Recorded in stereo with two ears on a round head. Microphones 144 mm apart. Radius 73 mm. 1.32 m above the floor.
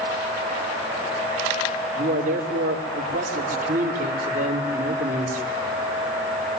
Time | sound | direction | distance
1.9 | a man speaking | 50° right (ahead or behind) | 4.5 m